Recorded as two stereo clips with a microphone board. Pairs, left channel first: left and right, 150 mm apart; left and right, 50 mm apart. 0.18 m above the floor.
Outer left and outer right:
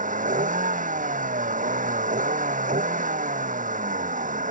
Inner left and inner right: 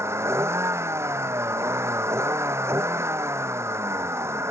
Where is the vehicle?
60° right (ahead or behind).